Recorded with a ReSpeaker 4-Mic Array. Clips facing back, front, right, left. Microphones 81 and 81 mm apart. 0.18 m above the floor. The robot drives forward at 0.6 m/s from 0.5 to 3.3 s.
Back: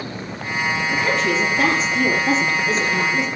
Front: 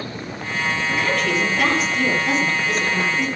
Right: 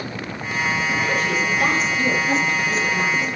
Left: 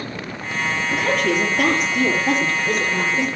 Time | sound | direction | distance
0.9 | a woman speaking | 110° left | 5.5 m